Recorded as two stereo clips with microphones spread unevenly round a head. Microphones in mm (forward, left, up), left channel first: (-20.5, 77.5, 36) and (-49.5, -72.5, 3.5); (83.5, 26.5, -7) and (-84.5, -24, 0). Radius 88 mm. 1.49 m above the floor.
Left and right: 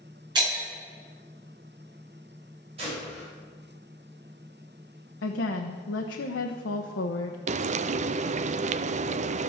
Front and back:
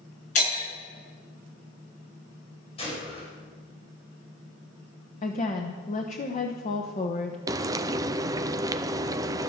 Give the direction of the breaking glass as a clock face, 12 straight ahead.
1 o'clock.